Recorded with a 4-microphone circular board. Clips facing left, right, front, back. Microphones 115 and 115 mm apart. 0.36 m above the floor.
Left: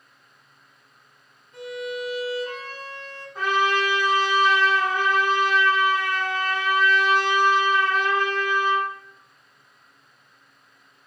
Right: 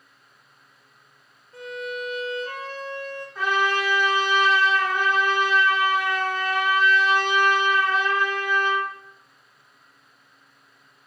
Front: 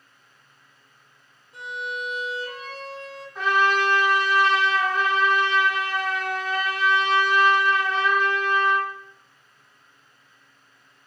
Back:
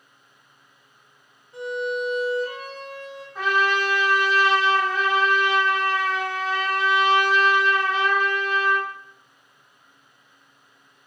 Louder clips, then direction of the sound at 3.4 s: Left 1 dB, front 1 dB; 115° left.